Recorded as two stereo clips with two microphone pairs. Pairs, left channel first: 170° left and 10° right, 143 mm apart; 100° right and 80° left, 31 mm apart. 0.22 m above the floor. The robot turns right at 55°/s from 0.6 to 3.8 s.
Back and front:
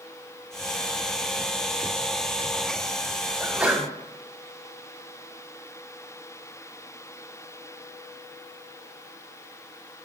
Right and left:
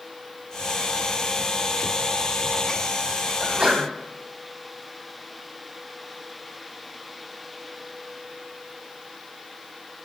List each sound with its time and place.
3.4 s a sneeze: 45° left, 1.1 m; by 3.9 s 65° left, 1.1 m